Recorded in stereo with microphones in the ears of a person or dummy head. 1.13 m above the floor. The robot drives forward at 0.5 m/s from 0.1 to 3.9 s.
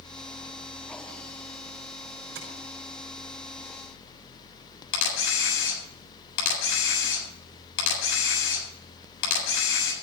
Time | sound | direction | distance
2.4 | tapping | 65° right (ahead or behind) | 3.5 m
4.9 | a camera shutter | 85° left | 7 m